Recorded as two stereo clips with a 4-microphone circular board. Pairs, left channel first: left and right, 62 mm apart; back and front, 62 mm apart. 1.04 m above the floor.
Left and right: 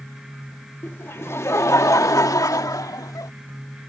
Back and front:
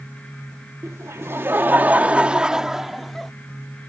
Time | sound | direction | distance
0.8 | laughter | 35° left | ?